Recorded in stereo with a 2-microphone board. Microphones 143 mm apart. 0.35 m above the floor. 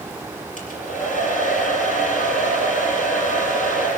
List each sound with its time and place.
0.6 s a hair dryer: 65° left (ahead or behind), 5 m